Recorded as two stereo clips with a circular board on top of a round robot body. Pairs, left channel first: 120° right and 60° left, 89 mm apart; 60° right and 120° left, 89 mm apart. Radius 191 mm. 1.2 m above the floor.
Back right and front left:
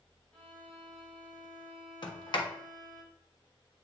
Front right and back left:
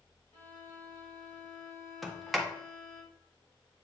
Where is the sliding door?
150° right, 1.4 m.